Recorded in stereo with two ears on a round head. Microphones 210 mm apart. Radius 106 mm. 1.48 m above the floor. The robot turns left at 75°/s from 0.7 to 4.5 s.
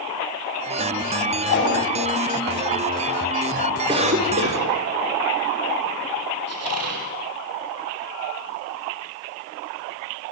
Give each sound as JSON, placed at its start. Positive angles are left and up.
{"t": 1.5, "sound": "a whoosh", "side_deg": 55, "distance_m": 9.5}
{"t": 3.9, "sound": "a cough", "azimuth_deg": -15, "distance_m": 5.5}
{"t": 6.5, "sound": "a squeak", "side_deg": -70, "distance_m": 5.0}